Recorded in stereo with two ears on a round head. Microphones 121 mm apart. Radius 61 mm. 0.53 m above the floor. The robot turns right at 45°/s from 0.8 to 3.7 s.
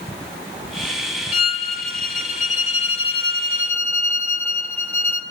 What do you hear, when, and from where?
1.3 s a violin: 60° left, 2.5 m; by 5.2 s 165° left, 2.5 m